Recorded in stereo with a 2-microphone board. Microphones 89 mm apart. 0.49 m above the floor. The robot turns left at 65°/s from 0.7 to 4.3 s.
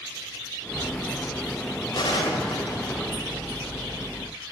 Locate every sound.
1.9 s a gunshot: 55° left (ahead or behind), 1.8 m; by 3.5 s 15° left (ahead or behind), 1.8 m